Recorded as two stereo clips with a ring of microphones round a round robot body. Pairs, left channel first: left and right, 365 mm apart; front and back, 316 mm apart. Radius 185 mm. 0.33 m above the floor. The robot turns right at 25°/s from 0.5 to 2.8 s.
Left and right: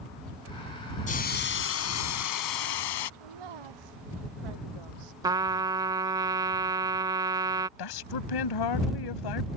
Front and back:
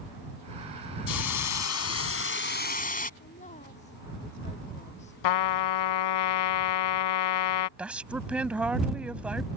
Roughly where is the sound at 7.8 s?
Left.